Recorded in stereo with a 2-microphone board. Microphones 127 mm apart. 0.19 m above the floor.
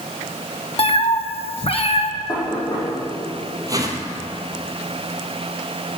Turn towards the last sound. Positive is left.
turn(degrees=-30)  # may be behind; listen again after turning